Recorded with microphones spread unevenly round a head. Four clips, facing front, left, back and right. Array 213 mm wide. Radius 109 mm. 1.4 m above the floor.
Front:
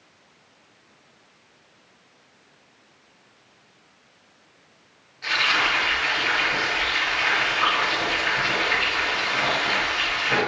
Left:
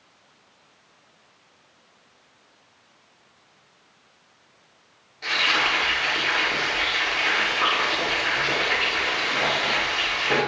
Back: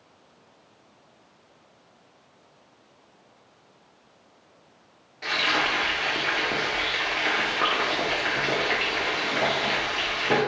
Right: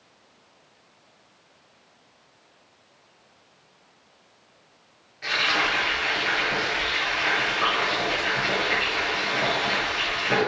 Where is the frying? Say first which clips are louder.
Left 1 dB, front 2 dB; 175° left, 2.5 m.